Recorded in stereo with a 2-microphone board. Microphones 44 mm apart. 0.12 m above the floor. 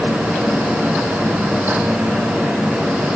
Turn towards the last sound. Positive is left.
No sound to turn to.